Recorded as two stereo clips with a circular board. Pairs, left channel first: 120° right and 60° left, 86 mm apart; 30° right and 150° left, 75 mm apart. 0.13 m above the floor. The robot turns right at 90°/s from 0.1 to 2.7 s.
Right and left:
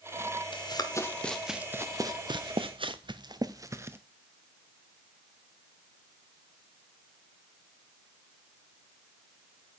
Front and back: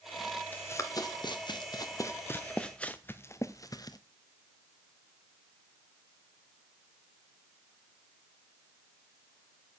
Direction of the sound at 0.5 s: 100° right.